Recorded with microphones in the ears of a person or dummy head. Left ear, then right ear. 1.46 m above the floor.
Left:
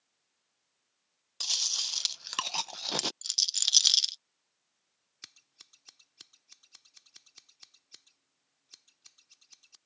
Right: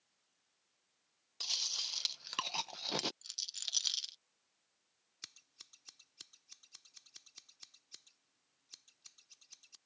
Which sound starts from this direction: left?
A rattle, at 3.2 s.